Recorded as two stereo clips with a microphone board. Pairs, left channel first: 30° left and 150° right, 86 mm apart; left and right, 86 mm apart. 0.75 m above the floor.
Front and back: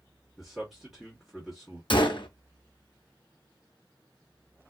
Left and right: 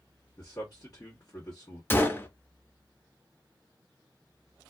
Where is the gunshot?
25° left, 0.5 m.